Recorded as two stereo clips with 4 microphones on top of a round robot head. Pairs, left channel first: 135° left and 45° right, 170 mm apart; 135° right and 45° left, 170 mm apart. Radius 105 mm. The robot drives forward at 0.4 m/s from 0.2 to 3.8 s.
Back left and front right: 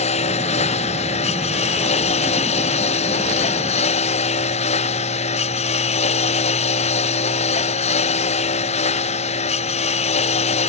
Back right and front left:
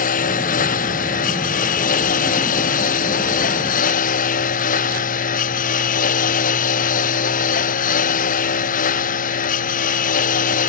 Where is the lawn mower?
175° right.